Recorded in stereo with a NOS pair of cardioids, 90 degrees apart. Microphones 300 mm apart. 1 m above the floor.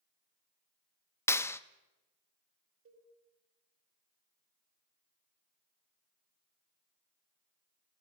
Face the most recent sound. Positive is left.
turn(degrees=-50)